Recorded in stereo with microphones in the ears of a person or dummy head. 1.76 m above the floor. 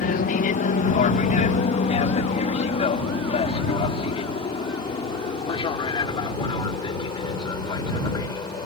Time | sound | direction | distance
0.0 | an aircraft | 40° left (ahead or behind) | ?